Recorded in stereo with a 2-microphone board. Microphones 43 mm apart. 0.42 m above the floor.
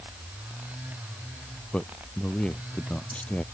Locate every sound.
1.7 s a man speaking: 25° left (ahead or behind)